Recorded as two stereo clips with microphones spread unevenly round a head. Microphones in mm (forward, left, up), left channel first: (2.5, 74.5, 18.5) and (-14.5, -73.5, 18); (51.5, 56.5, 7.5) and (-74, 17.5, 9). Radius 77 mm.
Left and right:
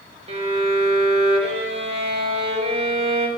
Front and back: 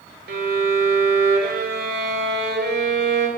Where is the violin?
145° right, 3 m.